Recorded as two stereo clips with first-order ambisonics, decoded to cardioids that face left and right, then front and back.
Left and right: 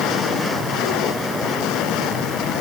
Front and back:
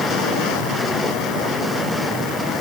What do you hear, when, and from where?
Only background noise.